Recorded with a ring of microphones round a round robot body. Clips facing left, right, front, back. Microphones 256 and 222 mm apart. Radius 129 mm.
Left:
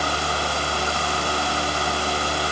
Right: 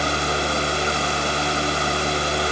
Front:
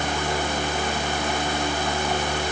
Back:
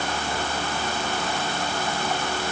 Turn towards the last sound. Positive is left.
No sound to turn to.